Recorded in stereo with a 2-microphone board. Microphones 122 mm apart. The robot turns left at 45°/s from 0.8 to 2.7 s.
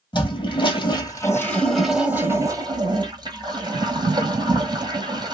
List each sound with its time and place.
0.1 s a toilet flushing: 45° left, 1.1 m; by 5.3 s 45° right, 1.1 m